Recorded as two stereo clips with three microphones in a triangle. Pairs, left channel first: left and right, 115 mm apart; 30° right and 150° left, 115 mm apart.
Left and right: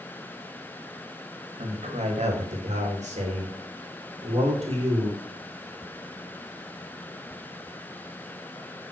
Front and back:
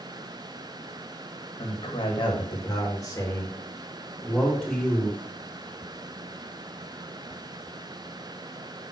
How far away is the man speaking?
About 2 m.